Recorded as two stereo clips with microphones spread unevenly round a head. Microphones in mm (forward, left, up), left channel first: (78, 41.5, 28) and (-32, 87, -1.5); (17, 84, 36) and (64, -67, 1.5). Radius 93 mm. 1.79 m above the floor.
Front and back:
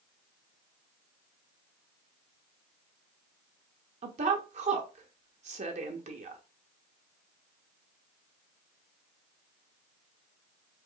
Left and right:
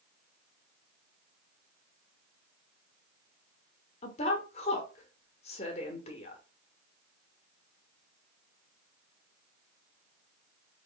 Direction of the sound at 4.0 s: 135° left.